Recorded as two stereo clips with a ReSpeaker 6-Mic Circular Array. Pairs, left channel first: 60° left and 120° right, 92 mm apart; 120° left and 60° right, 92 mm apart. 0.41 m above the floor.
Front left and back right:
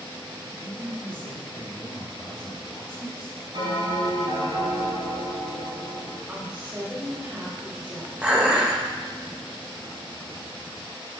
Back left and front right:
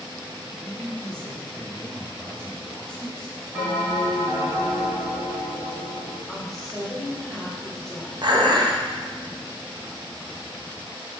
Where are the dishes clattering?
45° right, 0.6 m.